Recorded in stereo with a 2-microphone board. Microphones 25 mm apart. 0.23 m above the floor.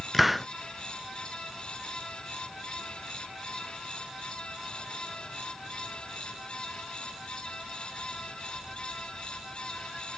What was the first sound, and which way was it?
A hiss, 5° right (ahead or behind).